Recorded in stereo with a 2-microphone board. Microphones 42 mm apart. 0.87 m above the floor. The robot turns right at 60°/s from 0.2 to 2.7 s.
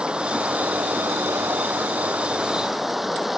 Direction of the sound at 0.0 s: 155° right.